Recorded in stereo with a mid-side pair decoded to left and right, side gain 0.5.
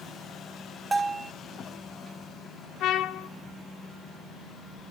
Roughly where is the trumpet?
Ahead left.